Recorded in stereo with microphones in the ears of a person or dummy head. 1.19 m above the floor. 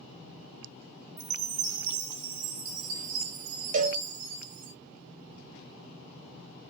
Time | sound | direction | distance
1.2 | a chime | 75° right (ahead or behind) | 1.0 m
3.7 | a cowbell | 40° right (ahead or behind) | 0.5 m